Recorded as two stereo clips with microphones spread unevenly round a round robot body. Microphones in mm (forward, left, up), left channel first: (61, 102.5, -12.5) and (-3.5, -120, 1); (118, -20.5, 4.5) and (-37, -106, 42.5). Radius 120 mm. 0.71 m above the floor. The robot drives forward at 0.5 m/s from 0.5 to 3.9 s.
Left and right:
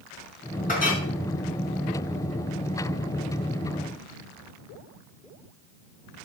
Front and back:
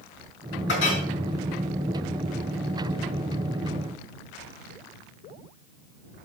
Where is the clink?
15° left, 5 m; by 1.0 s 20° left, 5 m.